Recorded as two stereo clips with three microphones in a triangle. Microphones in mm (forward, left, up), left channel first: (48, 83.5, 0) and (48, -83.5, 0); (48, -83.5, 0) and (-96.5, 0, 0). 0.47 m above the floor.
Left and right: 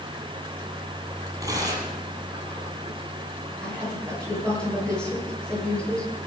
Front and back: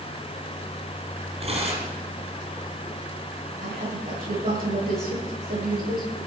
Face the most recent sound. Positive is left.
turn(degrees=175)